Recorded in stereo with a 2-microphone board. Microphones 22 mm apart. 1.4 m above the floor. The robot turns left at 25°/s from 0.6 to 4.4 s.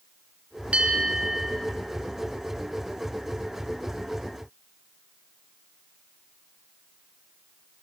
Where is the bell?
75° right (ahead or behind), 4.5 m; by 1.5 s 60° right (ahead or behind), 4.5 m.